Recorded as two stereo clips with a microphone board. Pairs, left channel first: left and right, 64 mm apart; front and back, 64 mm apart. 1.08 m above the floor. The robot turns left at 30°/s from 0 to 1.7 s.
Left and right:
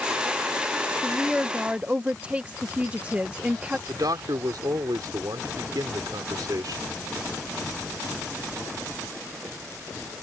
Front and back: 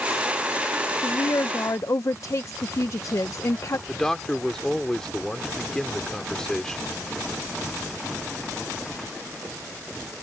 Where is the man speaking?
80° right.